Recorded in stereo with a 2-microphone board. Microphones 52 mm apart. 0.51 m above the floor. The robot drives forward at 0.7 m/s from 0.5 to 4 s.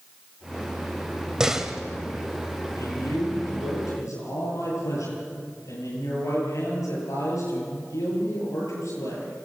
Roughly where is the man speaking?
Left.